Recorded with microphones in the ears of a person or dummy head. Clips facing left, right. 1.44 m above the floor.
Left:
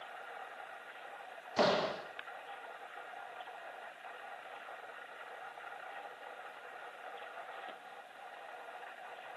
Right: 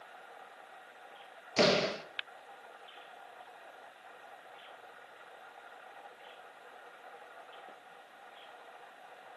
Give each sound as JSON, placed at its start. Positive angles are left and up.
{"t": 1.6, "sound": "a door slam", "side_deg": -35, "distance_m": 1.4}